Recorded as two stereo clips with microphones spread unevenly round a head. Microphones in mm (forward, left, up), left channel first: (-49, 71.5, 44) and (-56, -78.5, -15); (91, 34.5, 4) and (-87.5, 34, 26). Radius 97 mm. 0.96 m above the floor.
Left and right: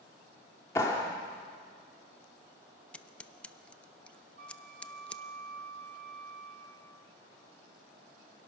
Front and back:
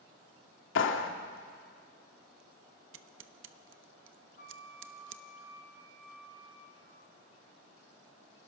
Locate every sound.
0.8 s a clap: 10° left, 1.5 m
2.9 s scissors: straight behind, 0.8 m
4.4 s a flute: 55° right, 3 m